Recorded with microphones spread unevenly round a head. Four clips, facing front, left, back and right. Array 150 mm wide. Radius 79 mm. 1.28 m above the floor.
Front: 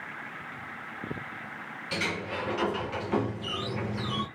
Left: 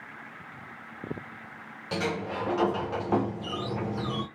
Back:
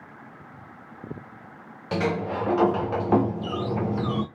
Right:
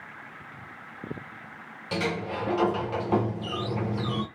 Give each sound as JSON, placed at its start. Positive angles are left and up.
{"t": 1.9, "sound": "a sliding door", "azimuth_deg": 180, "distance_m": 0.6}